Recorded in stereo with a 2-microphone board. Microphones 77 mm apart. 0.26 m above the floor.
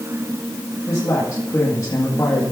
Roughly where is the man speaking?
Left.